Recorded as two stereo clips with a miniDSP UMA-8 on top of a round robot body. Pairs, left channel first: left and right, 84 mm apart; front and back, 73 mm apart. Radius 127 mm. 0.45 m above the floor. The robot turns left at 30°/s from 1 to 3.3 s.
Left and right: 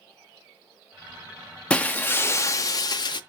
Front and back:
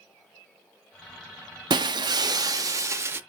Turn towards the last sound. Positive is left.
turn(degrees=120)